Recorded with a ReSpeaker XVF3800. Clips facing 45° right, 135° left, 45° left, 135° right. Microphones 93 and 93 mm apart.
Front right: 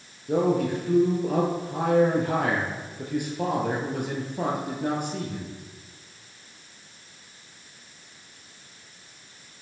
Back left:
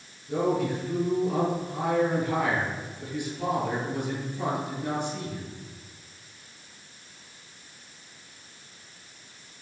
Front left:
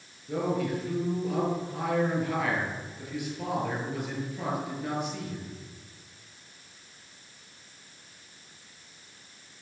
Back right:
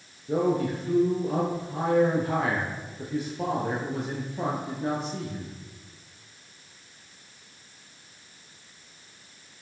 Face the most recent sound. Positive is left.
turn(degrees=-80)